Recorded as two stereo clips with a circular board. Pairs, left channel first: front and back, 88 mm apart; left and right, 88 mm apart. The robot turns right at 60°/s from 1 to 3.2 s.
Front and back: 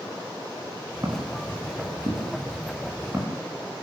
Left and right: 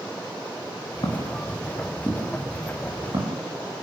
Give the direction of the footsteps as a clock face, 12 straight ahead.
8 o'clock.